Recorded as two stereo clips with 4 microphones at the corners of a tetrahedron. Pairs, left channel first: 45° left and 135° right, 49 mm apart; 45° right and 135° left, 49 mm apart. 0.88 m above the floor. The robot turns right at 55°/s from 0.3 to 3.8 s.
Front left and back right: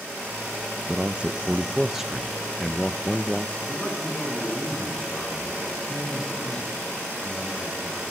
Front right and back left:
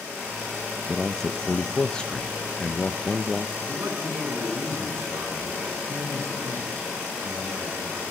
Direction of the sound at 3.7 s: 105° left.